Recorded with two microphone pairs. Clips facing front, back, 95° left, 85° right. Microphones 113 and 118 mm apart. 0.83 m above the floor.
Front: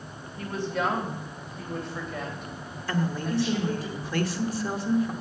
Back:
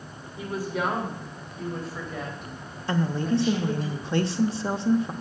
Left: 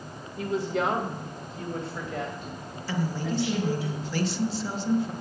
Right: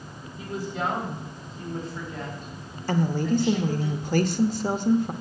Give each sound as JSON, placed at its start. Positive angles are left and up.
{"t": 0.4, "sound": "a woman speaking", "azimuth_deg": 100, "distance_m": 2.5}
{"t": 2.9, "sound": "a woman speaking", "azimuth_deg": -120, "distance_m": 1.0}